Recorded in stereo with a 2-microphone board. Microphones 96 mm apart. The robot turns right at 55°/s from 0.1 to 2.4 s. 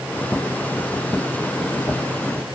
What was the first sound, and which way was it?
Only background noise.